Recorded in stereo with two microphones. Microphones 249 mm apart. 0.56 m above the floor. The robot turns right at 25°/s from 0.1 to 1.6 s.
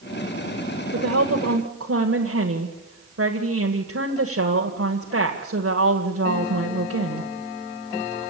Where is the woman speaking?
70° right (ahead or behind), 1.9 m; by 7.3 s 65° right (ahead or behind), 1.9 m.